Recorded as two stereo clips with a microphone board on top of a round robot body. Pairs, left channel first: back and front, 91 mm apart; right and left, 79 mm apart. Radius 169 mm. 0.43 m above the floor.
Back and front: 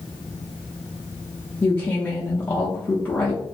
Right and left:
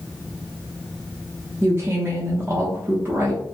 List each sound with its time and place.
1.6 s a woman speaking: 120° left, 0.8 m